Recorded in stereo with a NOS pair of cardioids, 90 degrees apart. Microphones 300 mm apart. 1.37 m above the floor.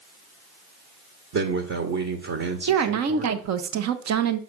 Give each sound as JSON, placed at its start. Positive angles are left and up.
{"t": 1.3, "sound": "a man speaking", "azimuth_deg": -50, "distance_m": 1.5}
{"t": 2.7, "sound": "a woman speaking", "azimuth_deg": -60, "distance_m": 1.0}